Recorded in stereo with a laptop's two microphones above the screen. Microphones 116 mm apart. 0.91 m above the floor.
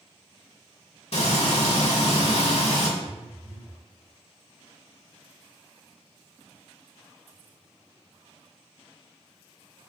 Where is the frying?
65° left (ahead or behind), 1.6 m.